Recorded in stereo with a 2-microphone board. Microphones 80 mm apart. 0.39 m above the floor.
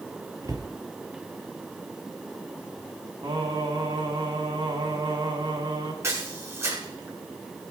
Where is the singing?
65° right (ahead or behind), 3 m.